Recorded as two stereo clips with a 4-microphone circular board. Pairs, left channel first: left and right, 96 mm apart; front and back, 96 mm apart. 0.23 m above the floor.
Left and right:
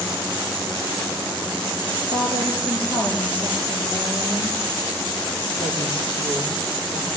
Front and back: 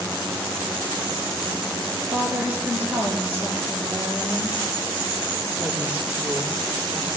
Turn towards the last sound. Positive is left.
turn(degrees=110)